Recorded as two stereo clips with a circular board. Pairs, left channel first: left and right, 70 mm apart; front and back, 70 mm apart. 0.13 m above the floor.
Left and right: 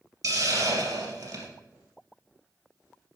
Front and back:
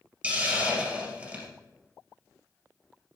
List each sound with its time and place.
0.2 s a hiss: 115° right, 2.5 m